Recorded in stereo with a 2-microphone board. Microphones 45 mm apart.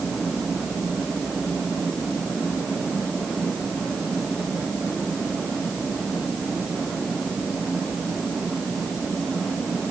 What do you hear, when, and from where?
Only background noise.